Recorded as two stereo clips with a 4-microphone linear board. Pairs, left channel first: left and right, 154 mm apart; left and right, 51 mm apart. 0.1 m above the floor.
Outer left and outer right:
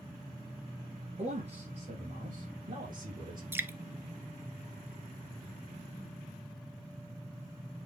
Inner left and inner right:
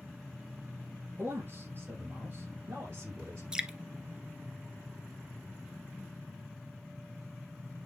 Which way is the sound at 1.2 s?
45° right (ahead or behind).